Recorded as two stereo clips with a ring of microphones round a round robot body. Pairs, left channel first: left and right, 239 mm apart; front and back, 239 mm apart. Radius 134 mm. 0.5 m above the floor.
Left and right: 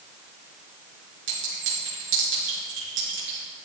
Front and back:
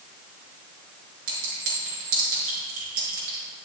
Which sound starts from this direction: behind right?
A clink, at 1.3 s.